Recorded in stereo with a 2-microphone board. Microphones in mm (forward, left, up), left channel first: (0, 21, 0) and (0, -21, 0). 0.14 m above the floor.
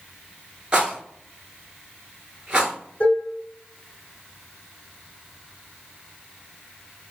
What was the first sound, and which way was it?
A rattle, 20° right (ahead or behind).